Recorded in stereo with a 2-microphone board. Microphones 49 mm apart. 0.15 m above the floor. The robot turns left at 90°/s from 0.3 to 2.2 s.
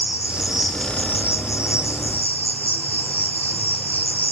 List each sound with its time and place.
0.0 s an insect: 155° right, 2 m; by 4.3 s 35° left, 2 m